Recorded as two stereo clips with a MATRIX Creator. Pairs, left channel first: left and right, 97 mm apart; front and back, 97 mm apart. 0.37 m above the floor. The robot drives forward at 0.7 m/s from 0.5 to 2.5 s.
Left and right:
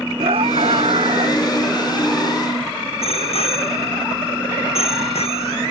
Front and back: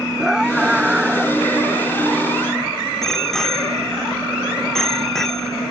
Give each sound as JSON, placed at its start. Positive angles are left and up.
{"t": 0.2, "sound": "a scream", "azimuth_deg": -95}
{"t": 3.0, "sound": "a bicycle bell", "azimuth_deg": 85}